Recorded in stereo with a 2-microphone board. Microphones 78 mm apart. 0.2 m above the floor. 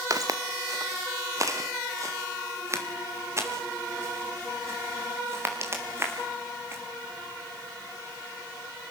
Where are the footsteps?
50° right (ahead or behind), 1.5 m; by 6.8 s 30° right (ahead or behind), 5.5 m.